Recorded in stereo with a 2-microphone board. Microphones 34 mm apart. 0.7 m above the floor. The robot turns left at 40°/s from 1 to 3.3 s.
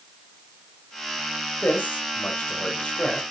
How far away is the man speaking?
About 3.5 m.